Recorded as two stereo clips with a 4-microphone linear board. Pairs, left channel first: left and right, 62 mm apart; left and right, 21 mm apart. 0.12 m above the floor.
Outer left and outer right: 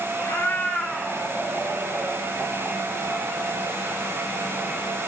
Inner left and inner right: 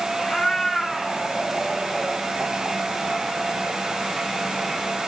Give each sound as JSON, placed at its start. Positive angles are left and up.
{"t": 0.2, "sound": "a cat meowing", "side_deg": 40, "distance_m": 1.1}